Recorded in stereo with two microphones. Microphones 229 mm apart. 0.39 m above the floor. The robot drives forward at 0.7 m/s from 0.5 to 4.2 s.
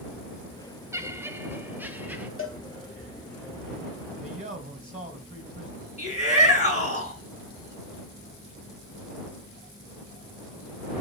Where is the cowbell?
60° left (ahead or behind), 1.1 m; by 2.6 s 65° left (ahead or behind), 1.1 m.